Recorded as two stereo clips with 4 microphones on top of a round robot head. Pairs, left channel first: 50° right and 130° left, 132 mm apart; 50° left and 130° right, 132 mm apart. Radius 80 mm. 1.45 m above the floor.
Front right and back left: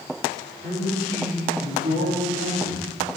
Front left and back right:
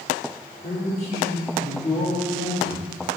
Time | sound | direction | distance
0.6 | a man speaking | 85° left | 3.5 m